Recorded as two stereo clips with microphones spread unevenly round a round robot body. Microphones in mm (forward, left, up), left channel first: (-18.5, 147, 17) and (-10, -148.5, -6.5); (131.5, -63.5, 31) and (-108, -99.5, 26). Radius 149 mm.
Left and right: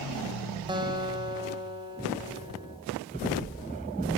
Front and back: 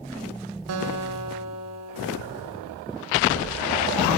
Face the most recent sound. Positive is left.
turn(degrees=-165)